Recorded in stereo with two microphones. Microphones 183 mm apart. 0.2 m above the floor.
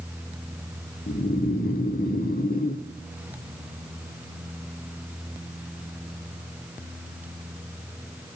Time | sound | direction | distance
1.1 | snoring | 55° left (ahead or behind) | 1.2 m